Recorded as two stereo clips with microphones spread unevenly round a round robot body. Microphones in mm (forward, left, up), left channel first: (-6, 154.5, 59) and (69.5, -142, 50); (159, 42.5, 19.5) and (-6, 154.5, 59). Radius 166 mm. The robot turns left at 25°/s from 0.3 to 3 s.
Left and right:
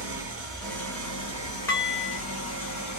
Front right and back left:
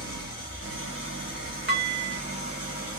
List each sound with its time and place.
0.0 s an engine running: 160° right, 1.3 m; by 3.0 s 135° left, 1.3 m
1.7 s dishes clattering: 175° right, 0.8 m; by 2.2 s 170° left, 0.8 m